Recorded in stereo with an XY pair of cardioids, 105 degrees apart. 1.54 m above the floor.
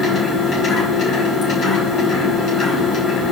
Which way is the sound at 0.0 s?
60° left.